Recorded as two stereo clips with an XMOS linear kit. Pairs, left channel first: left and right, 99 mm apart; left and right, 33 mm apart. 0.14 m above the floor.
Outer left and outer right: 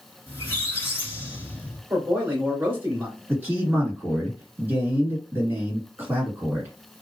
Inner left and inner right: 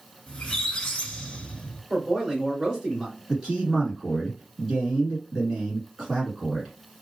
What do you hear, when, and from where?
0.3 s a squeak: 20° left (ahead or behind), 1.3 m
1.9 s a man speaking: 20° right (ahead or behind), 1.8 m
3.3 s a man speaking: 20° right (ahead or behind), 1.9 m